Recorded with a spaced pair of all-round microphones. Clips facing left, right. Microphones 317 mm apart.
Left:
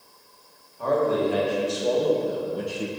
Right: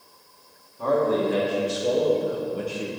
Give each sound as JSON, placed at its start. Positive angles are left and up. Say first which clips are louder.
{"t": 0.8, "sound": "a man speaking", "louder": "even", "side_deg": -25, "distance_m": 2.5}